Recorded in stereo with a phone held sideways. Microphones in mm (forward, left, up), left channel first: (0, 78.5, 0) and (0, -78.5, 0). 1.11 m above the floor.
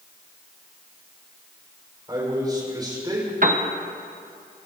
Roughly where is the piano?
Right.